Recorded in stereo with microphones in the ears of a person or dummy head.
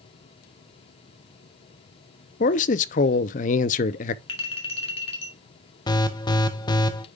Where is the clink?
30° left (ahead or behind), 1.5 m.